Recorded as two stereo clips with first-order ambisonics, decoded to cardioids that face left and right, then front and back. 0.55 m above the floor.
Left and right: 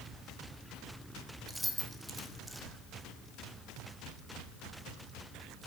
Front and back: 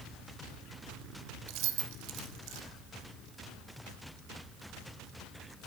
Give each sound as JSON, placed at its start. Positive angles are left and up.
{"t": 1.5, "sound": "keys jangling", "azimuth_deg": -175, "distance_m": 0.9}